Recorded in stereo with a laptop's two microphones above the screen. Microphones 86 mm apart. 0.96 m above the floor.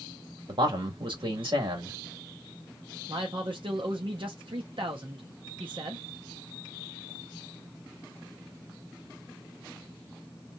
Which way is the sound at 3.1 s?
75° right (ahead or behind).